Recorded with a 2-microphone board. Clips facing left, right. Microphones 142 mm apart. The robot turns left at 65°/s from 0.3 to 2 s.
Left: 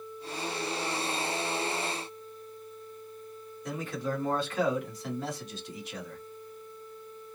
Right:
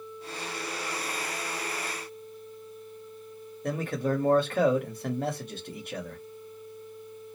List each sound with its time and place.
3.6 s a man speaking: 60° right (ahead or behind), 1.1 m